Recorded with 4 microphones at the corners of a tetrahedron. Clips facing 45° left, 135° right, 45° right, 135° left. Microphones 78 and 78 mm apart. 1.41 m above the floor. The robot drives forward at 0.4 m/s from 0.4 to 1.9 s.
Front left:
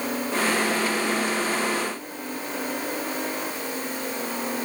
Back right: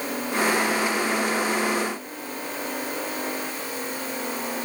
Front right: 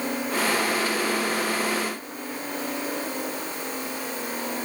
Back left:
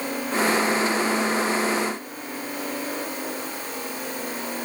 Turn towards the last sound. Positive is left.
No sound to turn to.